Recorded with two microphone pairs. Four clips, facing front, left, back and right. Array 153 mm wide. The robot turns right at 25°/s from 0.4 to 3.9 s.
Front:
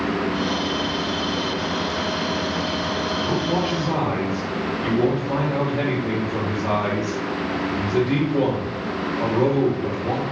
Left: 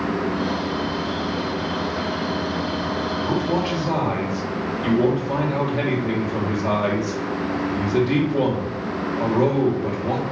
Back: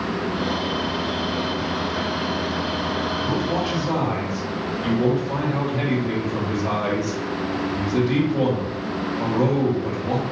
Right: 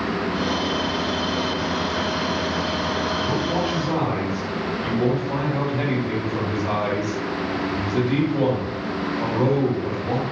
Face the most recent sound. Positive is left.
turn(degrees=70)